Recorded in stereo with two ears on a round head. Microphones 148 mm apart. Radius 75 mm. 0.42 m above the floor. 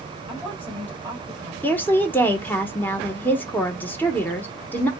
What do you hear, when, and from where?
0.3 s a woman speaking: 10° left (ahead or behind), 1.6 m
1.6 s a woman speaking: 10° left (ahead or behind), 0.8 m